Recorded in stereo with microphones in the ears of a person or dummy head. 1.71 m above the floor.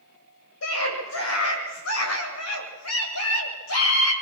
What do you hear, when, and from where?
0.6 s a scream: 70° left (ahead or behind), 8.5 m; by 4.1 s 85° left, 8 m